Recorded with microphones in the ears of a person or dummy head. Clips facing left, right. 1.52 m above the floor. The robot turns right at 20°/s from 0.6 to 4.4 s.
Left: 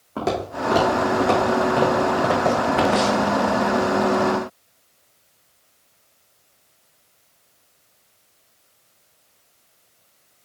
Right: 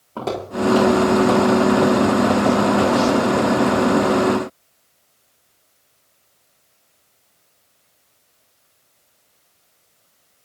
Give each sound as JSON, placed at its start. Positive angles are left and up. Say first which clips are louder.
{"t": 0.2, "sound": "footsteps", "louder": "right 1 dB", "side_deg": 15, "distance_m": 3.0}